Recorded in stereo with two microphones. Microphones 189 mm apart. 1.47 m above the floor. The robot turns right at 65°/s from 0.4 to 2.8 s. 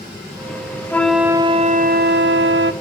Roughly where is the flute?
Behind.